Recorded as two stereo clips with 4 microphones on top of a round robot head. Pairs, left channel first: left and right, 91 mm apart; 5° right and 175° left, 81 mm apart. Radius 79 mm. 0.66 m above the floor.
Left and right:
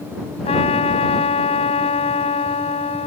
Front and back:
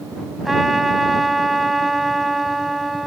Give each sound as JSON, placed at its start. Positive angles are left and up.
{"t": 0.5, "sound": "a trumpet", "azimuth_deg": 90}